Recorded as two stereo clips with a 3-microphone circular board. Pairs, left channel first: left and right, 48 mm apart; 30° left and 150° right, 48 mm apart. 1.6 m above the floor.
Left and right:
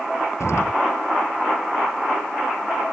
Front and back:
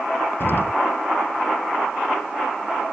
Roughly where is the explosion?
Left.